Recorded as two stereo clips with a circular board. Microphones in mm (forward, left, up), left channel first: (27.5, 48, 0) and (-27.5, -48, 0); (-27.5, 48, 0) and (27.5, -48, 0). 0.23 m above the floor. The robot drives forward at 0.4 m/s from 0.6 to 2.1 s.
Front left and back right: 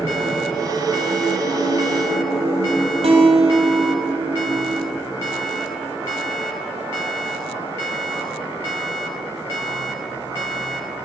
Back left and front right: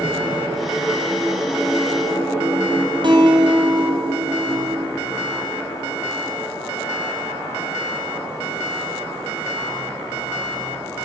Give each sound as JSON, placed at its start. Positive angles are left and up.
{"t": 3.0, "sound": "a guitar", "azimuth_deg": -100, "distance_m": 1.1}